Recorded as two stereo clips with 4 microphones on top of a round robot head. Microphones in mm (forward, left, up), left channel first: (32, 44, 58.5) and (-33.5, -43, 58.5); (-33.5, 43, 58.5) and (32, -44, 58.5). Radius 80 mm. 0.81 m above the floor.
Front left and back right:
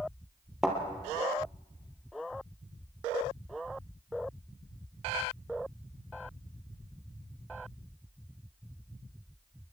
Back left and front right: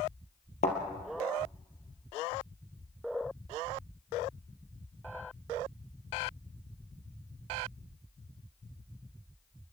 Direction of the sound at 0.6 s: 145° left.